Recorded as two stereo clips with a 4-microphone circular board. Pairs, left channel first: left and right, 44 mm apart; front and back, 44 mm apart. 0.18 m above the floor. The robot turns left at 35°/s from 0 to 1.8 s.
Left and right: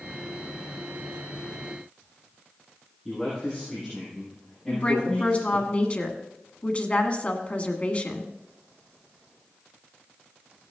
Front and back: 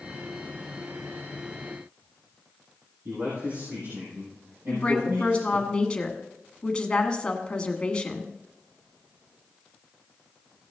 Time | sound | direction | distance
3.0 | a man speaking | 175° left | 6 m
4.7 | a woman speaking | 55° left | 1.4 m